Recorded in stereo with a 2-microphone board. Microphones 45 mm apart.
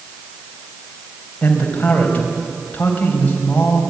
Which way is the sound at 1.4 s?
30° left (ahead or behind).